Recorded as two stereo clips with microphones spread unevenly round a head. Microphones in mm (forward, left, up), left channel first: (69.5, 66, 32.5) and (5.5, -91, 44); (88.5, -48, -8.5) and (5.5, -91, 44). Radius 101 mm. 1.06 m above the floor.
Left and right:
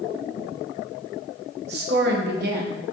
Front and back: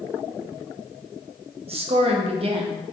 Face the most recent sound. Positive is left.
turn(degrees=-120)